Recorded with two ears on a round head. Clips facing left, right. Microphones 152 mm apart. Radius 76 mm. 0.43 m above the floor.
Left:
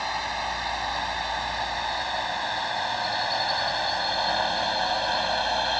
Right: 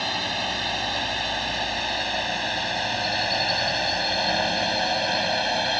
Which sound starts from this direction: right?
A drone, at 0.0 s.